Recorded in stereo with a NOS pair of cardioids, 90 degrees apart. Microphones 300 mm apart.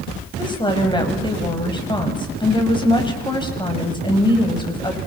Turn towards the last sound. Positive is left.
turn(degrees=15)